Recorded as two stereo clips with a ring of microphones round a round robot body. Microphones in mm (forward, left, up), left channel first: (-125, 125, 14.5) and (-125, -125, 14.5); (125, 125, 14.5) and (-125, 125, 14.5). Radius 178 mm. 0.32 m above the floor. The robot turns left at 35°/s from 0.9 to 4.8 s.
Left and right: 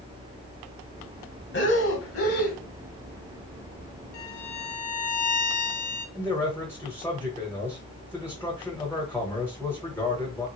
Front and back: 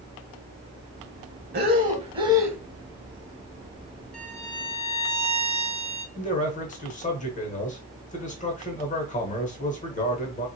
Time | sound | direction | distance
1.5 | breathing | 130° left | 0.9 m
4.1 | a violin | 90° left | 0.9 m
6.2 | a man speaking | 15° left | 0.9 m